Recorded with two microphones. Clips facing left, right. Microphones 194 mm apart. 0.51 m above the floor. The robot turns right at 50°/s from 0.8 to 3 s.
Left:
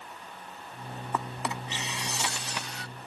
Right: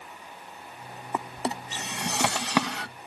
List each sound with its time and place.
1.1 s a drawer: 15° right (ahead or behind); by 3.0 s 70° right (ahead or behind)